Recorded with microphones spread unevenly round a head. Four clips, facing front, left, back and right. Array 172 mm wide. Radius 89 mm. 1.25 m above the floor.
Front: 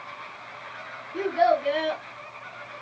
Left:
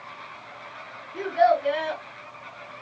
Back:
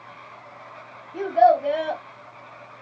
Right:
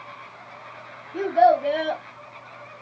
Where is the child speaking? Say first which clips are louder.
Right 3 dB, back 5 dB; 140° right, 1.6 m.